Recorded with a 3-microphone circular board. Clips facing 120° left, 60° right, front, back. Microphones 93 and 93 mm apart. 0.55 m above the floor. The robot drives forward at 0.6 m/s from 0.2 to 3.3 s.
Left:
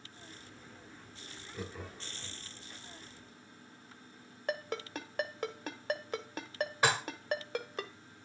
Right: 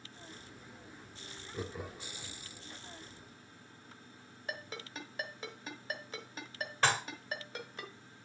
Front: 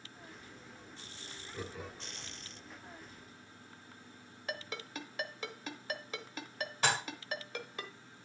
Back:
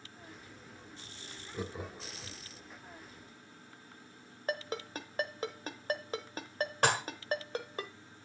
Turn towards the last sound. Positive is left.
turn(degrees=-160)